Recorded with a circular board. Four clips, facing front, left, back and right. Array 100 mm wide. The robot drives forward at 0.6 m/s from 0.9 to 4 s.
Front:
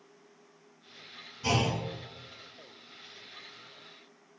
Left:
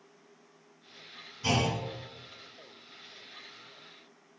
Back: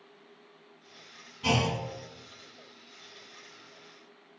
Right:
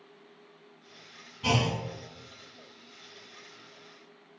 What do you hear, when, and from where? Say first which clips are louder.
1.4 s a clunk: right 1 dB, back 1 dB; 130° right, 1.6 m; by 1.8 s 140° right, 1.7 m